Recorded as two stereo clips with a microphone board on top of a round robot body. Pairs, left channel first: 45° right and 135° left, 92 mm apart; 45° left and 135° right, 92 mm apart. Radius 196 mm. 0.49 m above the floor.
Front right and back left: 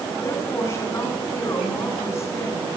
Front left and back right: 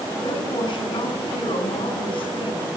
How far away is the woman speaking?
About 9 m.